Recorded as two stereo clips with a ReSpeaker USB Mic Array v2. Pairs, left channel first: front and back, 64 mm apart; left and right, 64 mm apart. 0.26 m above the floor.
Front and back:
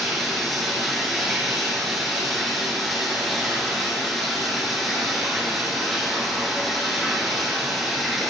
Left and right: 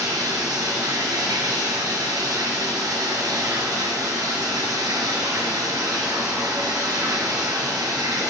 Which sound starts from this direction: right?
Running water, at 0.0 s.